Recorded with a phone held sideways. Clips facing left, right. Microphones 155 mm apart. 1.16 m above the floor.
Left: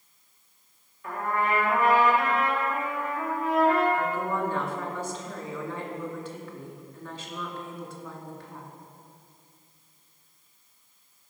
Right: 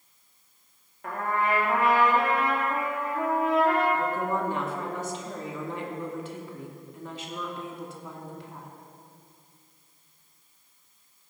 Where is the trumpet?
60° right (ahead or behind), 2.5 m.